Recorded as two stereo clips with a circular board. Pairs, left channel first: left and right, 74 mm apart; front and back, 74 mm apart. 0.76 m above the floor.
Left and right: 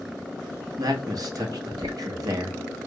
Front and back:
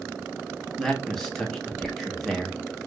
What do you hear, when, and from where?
0.8 s a man speaking: 85° right, 1.0 m